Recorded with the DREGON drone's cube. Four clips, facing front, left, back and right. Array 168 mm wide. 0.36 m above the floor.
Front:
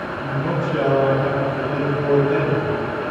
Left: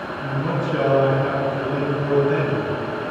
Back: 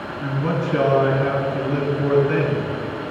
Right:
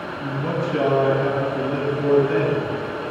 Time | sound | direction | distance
0.2 | a man speaking | 160° left | 3.5 m